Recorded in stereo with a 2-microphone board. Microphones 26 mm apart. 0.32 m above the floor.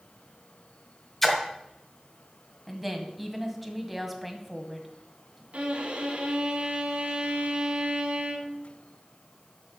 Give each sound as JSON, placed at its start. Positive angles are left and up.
{"t": 1.2, "sound": "a splash", "side_deg": 10, "distance_m": 1.6}
{"t": 2.7, "sound": "a woman speaking", "side_deg": 0, "distance_m": 1.6}
{"t": 5.5, "sound": "a violin", "side_deg": -60, "distance_m": 1.8}